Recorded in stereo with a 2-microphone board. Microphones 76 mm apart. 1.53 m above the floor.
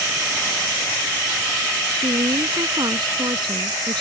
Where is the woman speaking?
80° right.